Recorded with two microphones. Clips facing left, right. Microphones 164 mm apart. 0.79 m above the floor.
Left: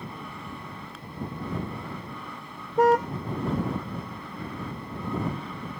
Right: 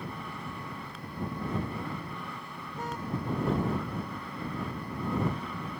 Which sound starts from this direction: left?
A car horn, at 2.8 s.